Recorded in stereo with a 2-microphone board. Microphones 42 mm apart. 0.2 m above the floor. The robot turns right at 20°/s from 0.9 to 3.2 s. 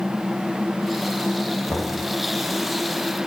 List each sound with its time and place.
1.7 s knocking: 80° left, 8 m; by 2.0 s 70° left (ahead or behind), 8 m